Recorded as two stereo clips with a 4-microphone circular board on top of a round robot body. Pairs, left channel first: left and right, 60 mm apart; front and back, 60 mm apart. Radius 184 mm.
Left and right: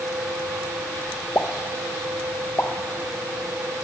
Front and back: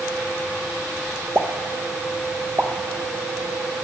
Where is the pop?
125° left, 1.1 m.